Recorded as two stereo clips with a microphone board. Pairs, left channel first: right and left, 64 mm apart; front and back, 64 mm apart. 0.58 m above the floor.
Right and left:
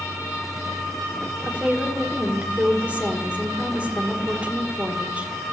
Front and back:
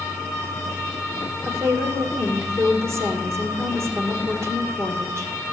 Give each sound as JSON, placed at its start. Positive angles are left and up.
{"t": 1.4, "sound": "a woman speaking", "azimuth_deg": 155, "distance_m": 1.6}